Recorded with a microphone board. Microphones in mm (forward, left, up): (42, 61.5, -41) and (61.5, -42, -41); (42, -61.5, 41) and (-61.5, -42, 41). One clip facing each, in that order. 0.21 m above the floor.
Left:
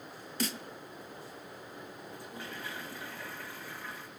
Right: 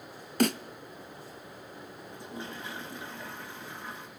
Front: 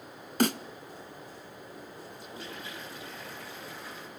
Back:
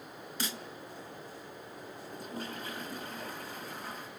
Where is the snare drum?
45° right, 0.9 m.